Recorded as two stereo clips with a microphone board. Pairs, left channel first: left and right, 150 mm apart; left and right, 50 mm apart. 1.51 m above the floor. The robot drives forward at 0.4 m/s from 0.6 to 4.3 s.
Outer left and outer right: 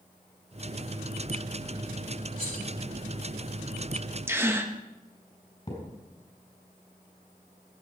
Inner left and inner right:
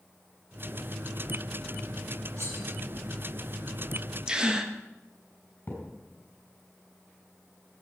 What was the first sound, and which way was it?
Cutlery clinking, 70° right (ahead or behind).